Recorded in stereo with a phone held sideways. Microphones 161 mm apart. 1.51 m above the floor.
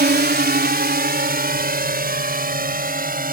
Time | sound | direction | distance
0.0 | a drone | 80° right | ?